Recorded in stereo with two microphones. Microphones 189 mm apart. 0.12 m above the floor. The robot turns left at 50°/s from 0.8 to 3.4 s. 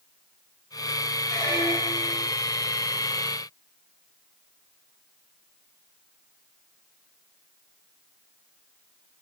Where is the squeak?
160° left, 0.8 m; by 2.3 s 110° left, 0.8 m.